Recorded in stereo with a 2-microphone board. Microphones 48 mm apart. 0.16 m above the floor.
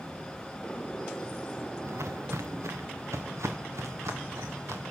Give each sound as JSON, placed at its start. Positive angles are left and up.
{"t": 1.8, "sound": "footsteps", "side_deg": -65, "distance_m": 1.3}